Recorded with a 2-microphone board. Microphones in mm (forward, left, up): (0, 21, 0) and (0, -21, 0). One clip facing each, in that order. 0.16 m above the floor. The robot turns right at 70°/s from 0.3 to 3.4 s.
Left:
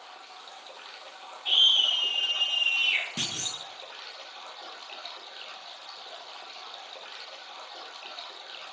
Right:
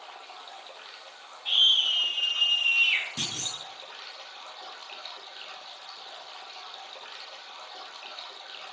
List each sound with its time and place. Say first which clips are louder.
0.0 s running water: right 2 dB; 40° right, 1.0 m; by 8.7 s 175° left, 1.0 m
1.4 s a scream: left 1 dB; 5° left (ahead or behind), 1.2 m; by 3.1 s 25° right (ahead or behind), 1.2 m
3.2 s a clunk: left 1 dB; 35° left (ahead or behind), 0.9 m; by 3.6 s 45° left (ahead or behind), 0.9 m